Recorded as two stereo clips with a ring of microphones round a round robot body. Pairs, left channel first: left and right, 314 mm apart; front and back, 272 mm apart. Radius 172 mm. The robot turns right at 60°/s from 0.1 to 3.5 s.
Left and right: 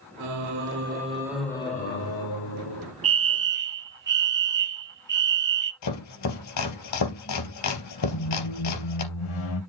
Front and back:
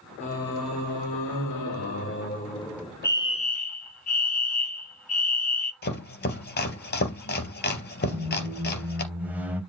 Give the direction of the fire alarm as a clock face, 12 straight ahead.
3 o'clock.